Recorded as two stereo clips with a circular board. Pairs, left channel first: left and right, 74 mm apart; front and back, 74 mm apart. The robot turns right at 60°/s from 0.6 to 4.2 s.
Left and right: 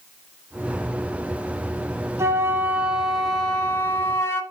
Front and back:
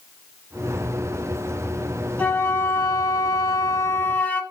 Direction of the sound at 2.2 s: 60° right.